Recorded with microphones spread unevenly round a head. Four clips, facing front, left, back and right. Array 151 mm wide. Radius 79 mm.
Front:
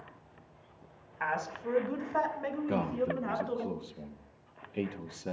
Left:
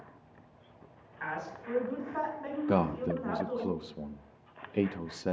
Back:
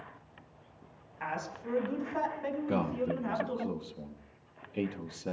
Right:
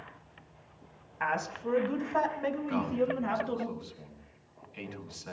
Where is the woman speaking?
50° right, 5 m; by 3.7 s 70° right, 6 m.